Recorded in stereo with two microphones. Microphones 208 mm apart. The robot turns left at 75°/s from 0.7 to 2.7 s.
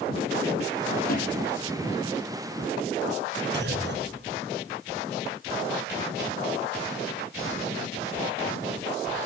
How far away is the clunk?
About 3 m.